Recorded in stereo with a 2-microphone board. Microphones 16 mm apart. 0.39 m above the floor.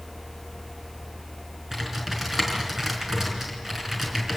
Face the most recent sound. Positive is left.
turn(degrees=-20)  # may be behind; listen again after turning